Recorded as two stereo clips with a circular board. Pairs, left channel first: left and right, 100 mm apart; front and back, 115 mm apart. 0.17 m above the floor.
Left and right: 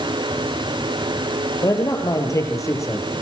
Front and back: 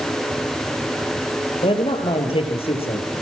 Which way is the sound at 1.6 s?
35° left.